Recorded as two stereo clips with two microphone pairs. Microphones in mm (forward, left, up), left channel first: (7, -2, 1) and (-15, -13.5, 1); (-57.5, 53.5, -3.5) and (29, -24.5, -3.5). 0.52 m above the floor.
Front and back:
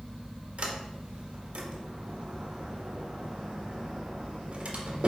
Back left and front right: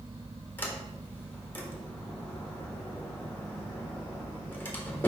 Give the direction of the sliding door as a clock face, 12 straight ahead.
5 o'clock.